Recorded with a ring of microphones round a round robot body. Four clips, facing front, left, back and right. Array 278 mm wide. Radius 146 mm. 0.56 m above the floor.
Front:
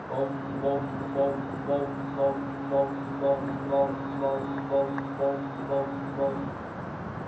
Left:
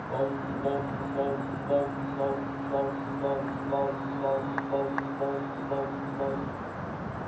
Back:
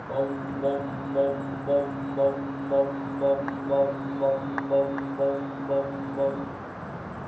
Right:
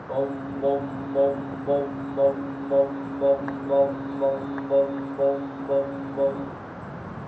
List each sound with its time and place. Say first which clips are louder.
0.1 s singing: right 4 dB, back 2 dB; 125° right, 2.5 m